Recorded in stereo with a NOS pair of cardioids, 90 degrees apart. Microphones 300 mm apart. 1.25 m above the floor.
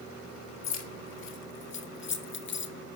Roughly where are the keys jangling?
Ahead left.